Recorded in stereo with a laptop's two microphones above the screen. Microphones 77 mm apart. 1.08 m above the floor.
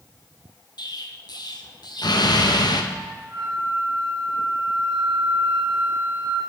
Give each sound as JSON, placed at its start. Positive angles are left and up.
{"t": 0.8, "sound": "an explosion", "side_deg": 60, "distance_m": 0.6}
{"t": 2.9, "sound": "a flute", "side_deg": -65, "distance_m": 1.9}